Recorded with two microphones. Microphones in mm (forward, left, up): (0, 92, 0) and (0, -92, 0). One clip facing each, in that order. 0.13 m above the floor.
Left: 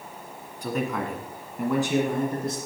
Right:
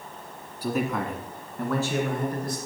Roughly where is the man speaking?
Centre.